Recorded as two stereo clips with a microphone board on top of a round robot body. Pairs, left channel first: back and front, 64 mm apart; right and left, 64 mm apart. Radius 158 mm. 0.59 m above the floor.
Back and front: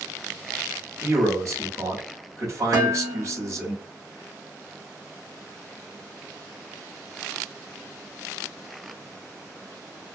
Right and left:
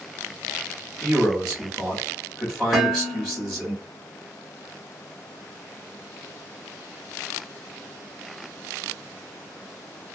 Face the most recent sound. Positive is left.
turn(degrees=5)